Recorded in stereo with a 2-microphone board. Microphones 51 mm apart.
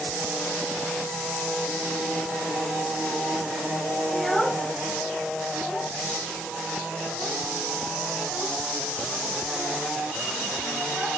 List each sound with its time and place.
4.1 s a child speaking: 5° left (ahead or behind), 0.7 m; by 11.1 s 10° left (ahead or behind), 5.5 m